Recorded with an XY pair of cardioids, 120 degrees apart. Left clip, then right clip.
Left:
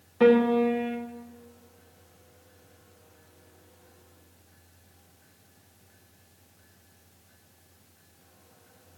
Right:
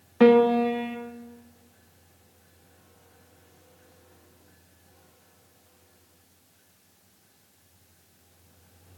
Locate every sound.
0.2 s a piano: 40° right, 1.6 m